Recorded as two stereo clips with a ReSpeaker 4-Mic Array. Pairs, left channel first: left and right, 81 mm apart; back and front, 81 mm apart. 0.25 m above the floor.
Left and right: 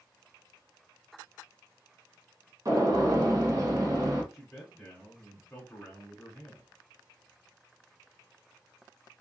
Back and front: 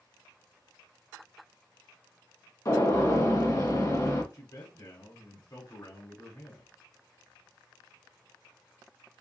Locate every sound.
2.6 s a gunshot: 135° right, 1.5 m
4.3 s a man speaking: 175° left, 1.5 m